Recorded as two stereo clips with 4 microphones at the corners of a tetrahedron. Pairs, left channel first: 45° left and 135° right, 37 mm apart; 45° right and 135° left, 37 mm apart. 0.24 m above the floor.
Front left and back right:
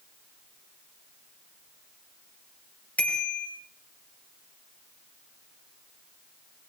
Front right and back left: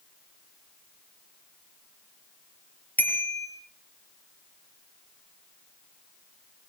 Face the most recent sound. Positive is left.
turn(degrees=0)